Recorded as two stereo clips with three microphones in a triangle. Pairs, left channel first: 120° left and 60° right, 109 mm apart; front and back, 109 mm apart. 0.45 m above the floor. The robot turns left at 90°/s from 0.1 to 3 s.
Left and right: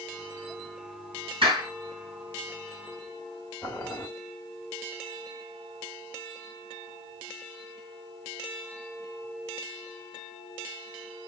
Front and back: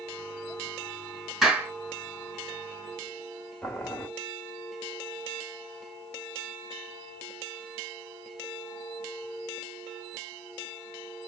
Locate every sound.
1.4 s a clap: 95° right, 3.5 m; by 1.7 s 120° right, 3.5 m
3.6 s boiling: 70° left, 1.4 m